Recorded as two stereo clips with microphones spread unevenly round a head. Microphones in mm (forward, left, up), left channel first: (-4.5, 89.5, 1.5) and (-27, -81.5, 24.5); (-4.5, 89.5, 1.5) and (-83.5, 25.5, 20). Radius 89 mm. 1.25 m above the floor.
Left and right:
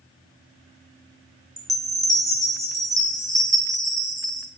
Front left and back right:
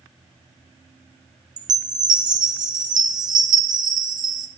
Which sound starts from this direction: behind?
A chime, at 1.6 s.